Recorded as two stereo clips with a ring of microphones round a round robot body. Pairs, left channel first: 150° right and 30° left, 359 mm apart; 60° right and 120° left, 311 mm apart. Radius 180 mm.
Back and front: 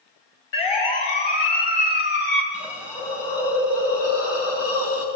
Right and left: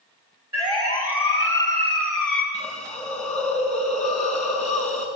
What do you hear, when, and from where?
0.5 s a siren: 160° right, 4.5 m; by 2.4 s 135° right, 4 m
2.5 s a hiss: 170° right, 5 m